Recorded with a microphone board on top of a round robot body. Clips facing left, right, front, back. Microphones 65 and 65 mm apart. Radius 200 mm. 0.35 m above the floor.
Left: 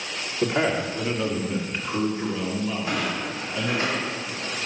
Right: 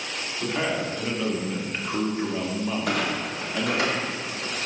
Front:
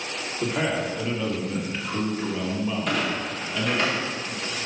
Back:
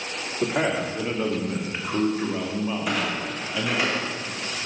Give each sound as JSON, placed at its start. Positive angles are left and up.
{"t": 0.4, "sound": "a man speaking", "azimuth_deg": 145, "distance_m": 1.7}
{"t": 2.9, "sound": "a clunk", "azimuth_deg": -95, "distance_m": 1.9}